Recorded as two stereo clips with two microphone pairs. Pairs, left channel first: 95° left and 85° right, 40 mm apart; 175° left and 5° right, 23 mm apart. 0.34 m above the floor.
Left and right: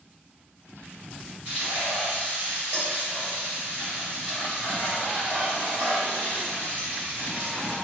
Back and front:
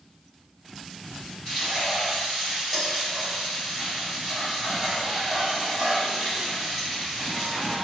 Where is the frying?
95° right, 1.6 m.